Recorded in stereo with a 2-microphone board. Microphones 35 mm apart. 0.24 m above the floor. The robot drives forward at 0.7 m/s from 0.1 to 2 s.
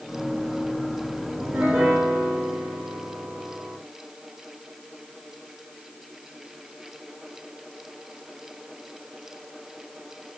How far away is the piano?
About 6 m.